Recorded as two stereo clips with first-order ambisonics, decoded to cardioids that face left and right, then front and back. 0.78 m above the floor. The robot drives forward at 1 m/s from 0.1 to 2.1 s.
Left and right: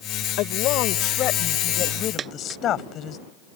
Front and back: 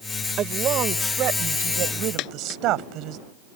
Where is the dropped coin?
30° right.